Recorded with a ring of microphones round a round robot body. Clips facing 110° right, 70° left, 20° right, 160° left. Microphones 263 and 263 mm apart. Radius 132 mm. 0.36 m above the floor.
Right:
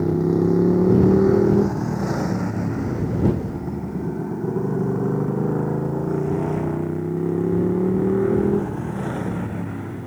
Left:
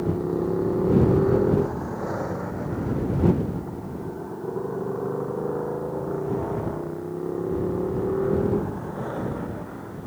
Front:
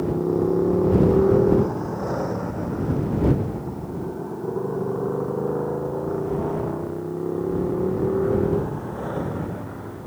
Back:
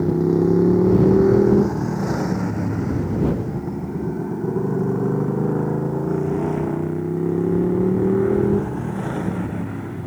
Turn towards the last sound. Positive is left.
turn(degrees=-155)